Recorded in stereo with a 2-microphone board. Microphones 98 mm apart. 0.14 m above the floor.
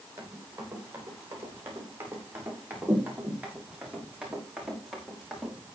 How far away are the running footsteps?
About 9.5 m.